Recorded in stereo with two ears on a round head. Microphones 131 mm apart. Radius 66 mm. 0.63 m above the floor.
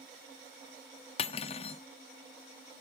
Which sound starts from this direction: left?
Cutlery clinking, at 1.2 s.